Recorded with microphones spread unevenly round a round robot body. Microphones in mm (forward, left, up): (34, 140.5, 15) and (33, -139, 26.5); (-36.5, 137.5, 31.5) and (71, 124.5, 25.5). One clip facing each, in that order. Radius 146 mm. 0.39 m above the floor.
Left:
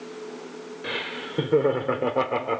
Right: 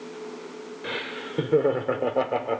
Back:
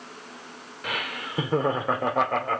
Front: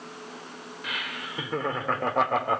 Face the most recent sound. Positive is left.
turn(degrees=30)